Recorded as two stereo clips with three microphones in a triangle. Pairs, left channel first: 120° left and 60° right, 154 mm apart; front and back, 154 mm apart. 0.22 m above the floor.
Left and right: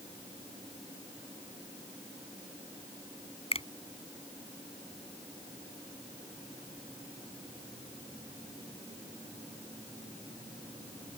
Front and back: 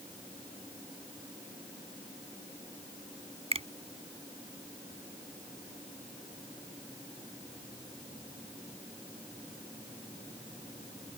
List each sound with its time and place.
3.5 s a finger snap: 150° left